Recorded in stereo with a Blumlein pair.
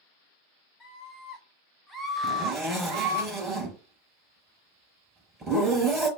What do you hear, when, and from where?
0.8 s a scream: 20° left, 1.5 m; by 3.2 s 60° right, 0.9 m
2.2 s a zipper: 10° right, 4 m